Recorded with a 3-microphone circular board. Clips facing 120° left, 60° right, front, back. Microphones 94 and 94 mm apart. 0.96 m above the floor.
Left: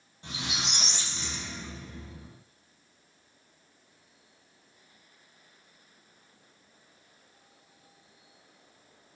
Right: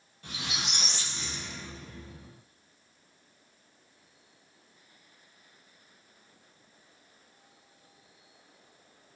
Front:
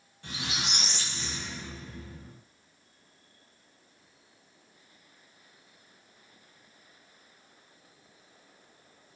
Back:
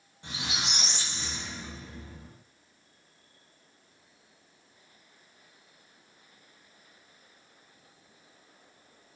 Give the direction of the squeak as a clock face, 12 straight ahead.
7 o'clock.